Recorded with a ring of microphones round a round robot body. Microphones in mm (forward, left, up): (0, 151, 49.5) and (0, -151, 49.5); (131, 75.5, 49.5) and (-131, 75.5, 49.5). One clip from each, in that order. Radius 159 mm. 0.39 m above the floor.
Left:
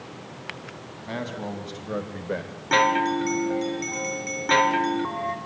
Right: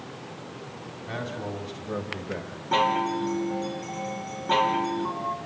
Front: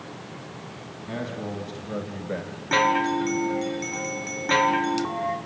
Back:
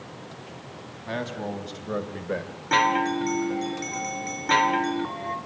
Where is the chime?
105° left, 2.5 m.